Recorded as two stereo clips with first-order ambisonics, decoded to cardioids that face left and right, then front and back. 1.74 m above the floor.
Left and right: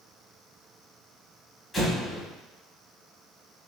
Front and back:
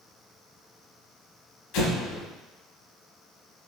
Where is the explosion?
5° left, 1.0 m.